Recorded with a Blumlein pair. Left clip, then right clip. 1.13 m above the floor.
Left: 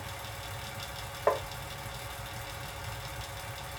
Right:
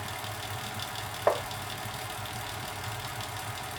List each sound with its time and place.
0.0 s a fan: 45° right, 1.3 m
1.3 s tapping: 10° right, 0.7 m